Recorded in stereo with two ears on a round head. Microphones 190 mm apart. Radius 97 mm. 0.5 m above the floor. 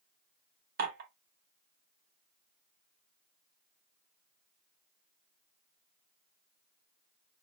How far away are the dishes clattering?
About 1.0 m.